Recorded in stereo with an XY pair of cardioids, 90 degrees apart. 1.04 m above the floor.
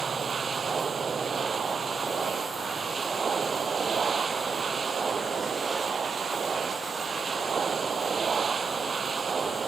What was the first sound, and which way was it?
A machine running, 40° right.